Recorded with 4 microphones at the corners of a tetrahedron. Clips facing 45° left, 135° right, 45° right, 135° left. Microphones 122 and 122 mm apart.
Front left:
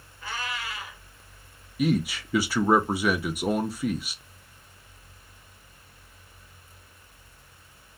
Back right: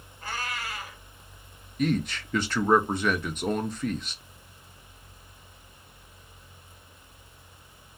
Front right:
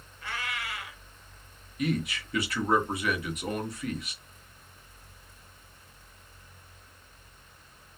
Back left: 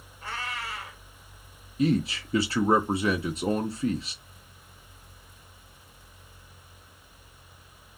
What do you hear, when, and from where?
0.2 s a cat meowing: 175° right, 1.6 m
1.8 s a man speaking: 120° left, 0.6 m